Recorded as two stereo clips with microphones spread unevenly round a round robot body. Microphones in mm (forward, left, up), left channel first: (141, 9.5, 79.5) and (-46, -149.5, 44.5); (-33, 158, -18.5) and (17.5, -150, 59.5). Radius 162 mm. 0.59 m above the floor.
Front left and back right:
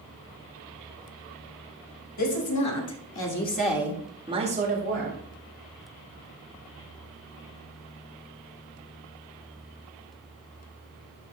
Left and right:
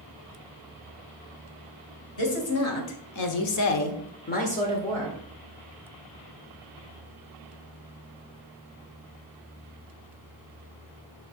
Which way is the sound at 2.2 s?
60° left.